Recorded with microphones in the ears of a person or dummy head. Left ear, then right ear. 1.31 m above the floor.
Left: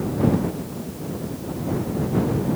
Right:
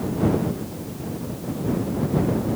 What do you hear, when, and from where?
Only background noise.